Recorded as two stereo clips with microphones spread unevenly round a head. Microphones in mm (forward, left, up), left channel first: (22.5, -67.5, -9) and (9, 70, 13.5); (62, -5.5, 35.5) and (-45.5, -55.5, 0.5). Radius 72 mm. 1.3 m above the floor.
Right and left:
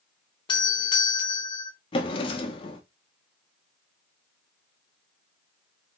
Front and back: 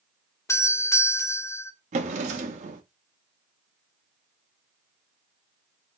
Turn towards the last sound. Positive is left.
turn(degrees=-135)